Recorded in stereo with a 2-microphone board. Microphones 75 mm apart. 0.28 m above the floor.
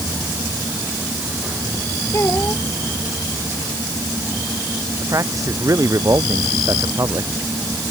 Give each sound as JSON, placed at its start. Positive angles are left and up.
{"t": 2.1, "sound": "a child speaking", "side_deg": 35}
{"t": 5.0, "sound": "a man speaking", "side_deg": -45}